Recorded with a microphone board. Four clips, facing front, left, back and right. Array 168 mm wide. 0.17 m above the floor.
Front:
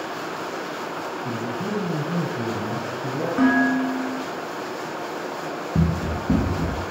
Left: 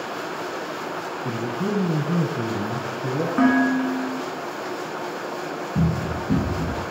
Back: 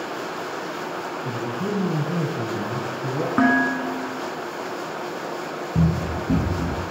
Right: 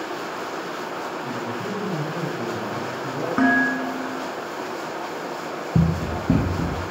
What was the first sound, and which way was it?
A man speaking, 105° left.